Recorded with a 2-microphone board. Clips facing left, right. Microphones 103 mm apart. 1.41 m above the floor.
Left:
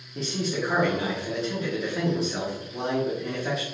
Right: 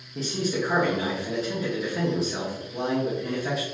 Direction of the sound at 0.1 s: Centre (ahead or behind).